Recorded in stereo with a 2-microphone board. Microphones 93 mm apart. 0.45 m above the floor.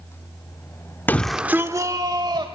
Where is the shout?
20° left (ahead or behind), 0.7 m; by 2.5 s 55° right (ahead or behind), 1.6 m.